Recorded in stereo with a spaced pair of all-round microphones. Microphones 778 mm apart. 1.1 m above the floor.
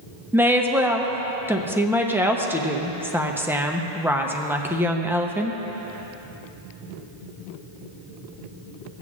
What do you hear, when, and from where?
0.3 s a woman speaking: 5° right (ahead or behind), 0.7 m